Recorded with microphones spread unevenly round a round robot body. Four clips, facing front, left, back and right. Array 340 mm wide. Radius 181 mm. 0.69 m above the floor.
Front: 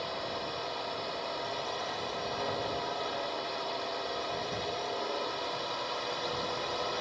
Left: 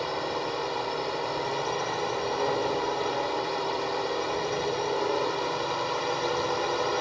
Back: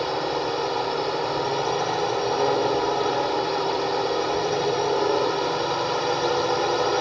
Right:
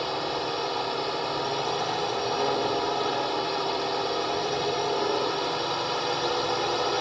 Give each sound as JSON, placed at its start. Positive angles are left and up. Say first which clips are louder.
{"t": 0.0, "sound": "a drone", "louder": "right 1 dB, back 12 dB", "azimuth_deg": -165}